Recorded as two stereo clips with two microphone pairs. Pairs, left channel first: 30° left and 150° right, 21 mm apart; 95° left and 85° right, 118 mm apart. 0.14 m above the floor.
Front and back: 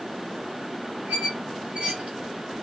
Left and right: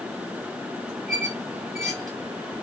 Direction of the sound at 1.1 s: Straight behind.